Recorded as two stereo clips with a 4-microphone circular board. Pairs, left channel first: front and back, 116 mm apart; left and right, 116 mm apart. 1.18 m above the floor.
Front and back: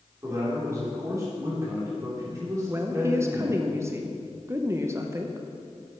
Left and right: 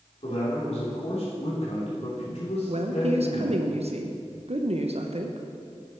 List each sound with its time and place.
0.2 s a man speaking: 115° left, 3.5 m
2.7 s a woman speaking: 115° right, 0.7 m